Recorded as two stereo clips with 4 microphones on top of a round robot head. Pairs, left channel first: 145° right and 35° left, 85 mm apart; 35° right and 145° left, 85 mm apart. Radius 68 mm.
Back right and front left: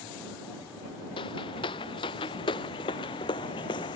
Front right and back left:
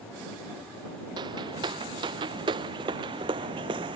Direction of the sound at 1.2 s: 175° right.